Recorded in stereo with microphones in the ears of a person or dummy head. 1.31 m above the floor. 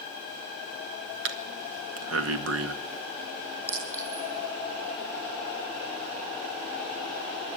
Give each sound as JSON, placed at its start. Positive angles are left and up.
{"t": 1.2, "sound": "breathing", "side_deg": -80, "distance_m": 1.9}
{"t": 3.7, "sound": "a clink", "side_deg": -10, "distance_m": 9.5}